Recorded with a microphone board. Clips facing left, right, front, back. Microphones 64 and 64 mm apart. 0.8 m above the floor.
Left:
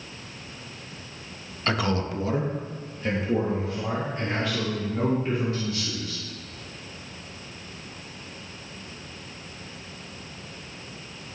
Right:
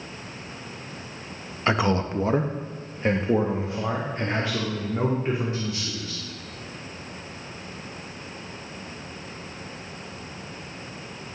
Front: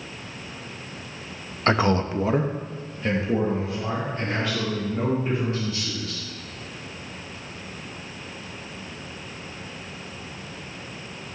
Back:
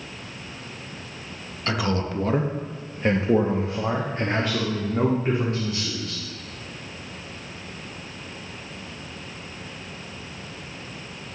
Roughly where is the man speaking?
Ahead right.